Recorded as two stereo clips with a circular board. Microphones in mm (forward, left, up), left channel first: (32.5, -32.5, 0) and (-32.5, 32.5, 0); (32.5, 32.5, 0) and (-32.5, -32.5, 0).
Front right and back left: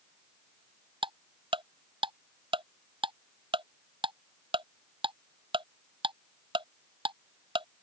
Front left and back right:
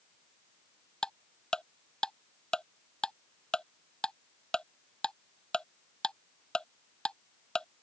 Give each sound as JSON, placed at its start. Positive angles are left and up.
{"t": 1.0, "sound": "ticking", "azimuth_deg": 125}